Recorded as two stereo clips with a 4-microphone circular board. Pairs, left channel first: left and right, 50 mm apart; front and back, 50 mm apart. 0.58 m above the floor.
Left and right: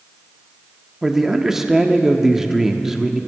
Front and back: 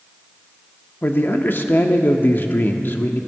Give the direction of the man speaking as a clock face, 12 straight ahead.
12 o'clock.